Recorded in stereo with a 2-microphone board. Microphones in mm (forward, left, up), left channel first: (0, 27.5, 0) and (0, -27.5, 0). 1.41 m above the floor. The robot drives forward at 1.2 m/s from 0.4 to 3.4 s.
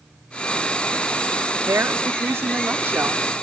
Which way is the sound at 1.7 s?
55° right (ahead or behind).